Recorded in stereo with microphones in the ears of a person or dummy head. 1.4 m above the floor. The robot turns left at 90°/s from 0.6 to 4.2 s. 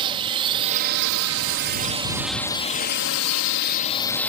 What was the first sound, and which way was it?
A drone, 25° right.